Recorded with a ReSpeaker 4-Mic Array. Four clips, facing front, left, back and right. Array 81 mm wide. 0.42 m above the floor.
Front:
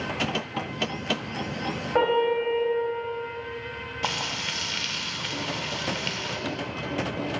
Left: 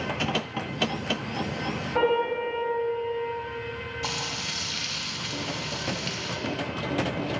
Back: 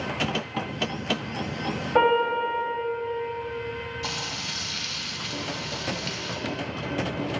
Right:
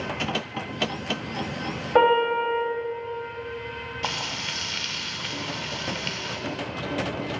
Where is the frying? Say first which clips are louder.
Right 4 dB, front 3 dB; 30° right, 0.7 m.